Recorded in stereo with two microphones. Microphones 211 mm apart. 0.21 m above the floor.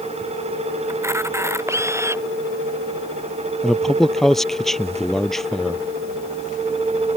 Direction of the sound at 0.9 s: 15° right (ahead or behind).